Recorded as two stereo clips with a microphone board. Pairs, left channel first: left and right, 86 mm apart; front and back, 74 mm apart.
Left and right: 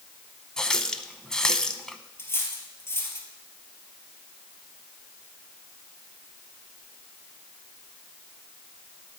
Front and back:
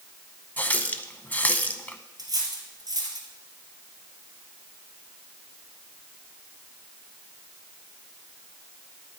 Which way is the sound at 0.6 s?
20° left.